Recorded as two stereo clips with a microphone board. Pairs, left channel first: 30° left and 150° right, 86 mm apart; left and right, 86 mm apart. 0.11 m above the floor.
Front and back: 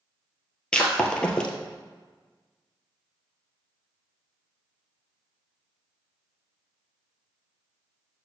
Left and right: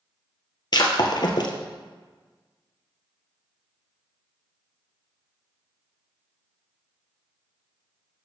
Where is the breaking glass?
105° left, 1.2 m.